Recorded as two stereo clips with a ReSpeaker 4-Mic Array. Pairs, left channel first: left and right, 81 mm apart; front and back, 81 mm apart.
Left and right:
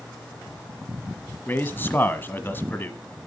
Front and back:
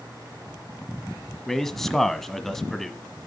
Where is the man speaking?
80° left, 1.1 m.